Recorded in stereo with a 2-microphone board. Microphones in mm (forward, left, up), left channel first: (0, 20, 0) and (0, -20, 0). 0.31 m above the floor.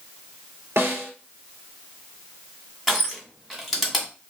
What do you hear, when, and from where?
0.8 s a snare drum: 75° right (ahead or behind), 1.8 m
2.9 s crushing: 5° right (ahead or behind), 1.6 m